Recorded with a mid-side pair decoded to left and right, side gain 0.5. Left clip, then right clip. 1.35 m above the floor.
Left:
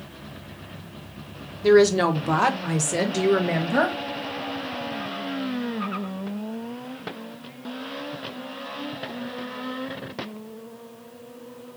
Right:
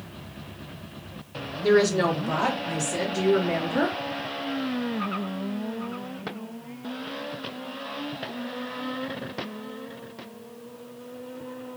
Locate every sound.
1.6 s a woman speaking: 20° left, 0.8 m; by 4.0 s 80° left, 1.4 m